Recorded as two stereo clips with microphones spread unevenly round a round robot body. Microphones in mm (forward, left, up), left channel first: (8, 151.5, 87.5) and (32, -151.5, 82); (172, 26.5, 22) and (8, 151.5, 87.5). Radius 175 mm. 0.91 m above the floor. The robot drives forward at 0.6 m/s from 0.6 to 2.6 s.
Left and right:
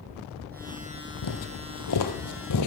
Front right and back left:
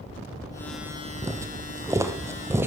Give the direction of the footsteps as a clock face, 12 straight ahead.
9 o'clock.